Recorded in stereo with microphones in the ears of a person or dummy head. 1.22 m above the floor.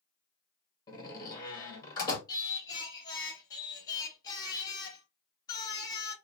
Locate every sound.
0.9 s a door slam: 20° left (ahead or behind), 1.4 m
2.3 s singing: 20° left (ahead or behind), 1.0 m